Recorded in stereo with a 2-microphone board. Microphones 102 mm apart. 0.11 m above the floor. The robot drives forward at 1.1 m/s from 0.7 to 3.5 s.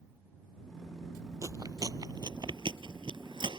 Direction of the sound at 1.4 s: 35° right (ahead or behind).